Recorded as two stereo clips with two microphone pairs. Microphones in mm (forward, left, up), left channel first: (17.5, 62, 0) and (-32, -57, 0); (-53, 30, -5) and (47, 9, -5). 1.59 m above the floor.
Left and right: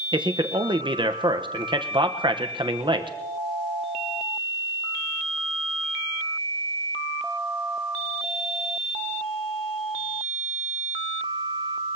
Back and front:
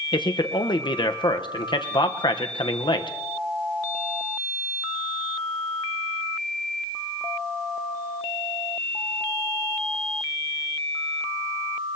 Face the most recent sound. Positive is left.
turn(degrees=-160)